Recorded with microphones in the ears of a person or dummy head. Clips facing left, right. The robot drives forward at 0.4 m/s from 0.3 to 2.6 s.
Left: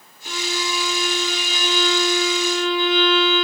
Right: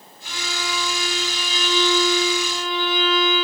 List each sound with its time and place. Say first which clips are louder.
0.2 s a violin: left 4 dB; 40° left (ahead or behind), 2 m; by 3.4 s 55° left (ahead or behind), 1.7 m